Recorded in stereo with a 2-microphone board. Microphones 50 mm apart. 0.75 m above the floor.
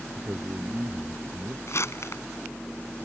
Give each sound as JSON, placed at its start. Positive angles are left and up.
{"t": 0.1, "sound": "a man speaking", "side_deg": -40}
{"t": 1.7, "sound": "crumpling", "side_deg": 60}